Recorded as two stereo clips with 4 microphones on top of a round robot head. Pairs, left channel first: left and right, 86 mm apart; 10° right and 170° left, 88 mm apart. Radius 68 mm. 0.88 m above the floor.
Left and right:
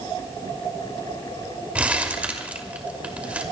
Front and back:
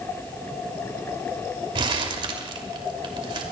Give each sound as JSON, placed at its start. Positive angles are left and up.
{"t": 1.8, "sound": "crumpling", "azimuth_deg": -165, "distance_m": 2.5}